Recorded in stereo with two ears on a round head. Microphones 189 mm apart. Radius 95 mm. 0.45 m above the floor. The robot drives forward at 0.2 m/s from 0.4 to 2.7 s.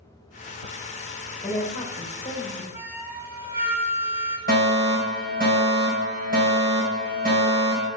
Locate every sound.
1.4 s a woman speaking: 25° left (ahead or behind), 1.8 m; by 2.6 s 20° left (ahead or behind), 1.9 m
2.7 s a flute: 10° right (ahead or behind), 0.9 m
4.5 s a fire alarm: 45° right (ahead or behind), 3.5 m